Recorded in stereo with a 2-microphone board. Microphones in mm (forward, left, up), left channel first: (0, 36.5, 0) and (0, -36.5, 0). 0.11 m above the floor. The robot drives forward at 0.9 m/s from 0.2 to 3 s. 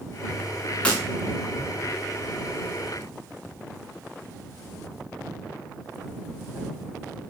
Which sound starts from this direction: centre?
Breaking glass, at 0.8 s.